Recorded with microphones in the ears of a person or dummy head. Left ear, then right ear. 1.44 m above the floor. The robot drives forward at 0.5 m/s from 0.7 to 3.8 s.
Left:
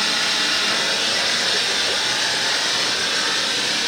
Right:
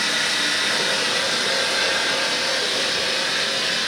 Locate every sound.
0.0 s running water: 35° right (ahead or behind), 3 m; by 3.9 s 25° right (ahead or behind), 4.5 m